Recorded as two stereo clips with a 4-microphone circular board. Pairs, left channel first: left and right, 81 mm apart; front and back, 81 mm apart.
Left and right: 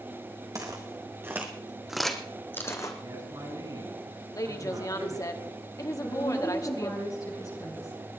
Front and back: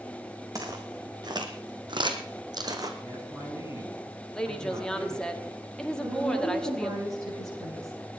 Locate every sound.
0.6 s footsteps: 135° right, 2.5 m; by 2.9 s 135° left, 1.7 m
3.0 s a man speaking: 130° right, 6.5 m
4.3 s a woman speaking: 80° left, 1.4 m
6.0 s a woman speaking: 135° left, 9 m